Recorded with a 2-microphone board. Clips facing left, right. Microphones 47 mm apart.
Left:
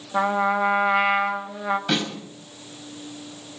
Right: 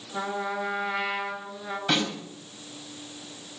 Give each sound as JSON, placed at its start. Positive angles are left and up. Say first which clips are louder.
{"t": 0.1, "sound": "a trumpet", "louder": "left 9 dB", "side_deg": 60, "distance_m": 1.6}
{"t": 1.9, "sound": "a snare drum", "louder": "right 4 dB", "side_deg": 0, "distance_m": 5.0}